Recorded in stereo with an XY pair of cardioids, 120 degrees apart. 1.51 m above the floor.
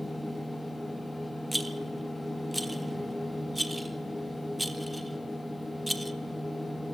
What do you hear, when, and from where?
0.0 s a machine running: 5° left, 1.1 m
1.5 s a rattle: 5° right, 0.5 m